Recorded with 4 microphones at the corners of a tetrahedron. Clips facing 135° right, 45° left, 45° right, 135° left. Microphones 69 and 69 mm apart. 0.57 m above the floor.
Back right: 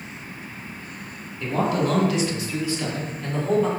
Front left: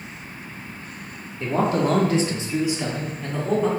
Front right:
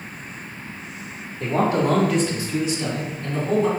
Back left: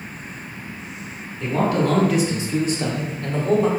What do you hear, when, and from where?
1.4 s a man speaking: 5° right, 1.0 m; by 3.7 s 135° left, 1.6 m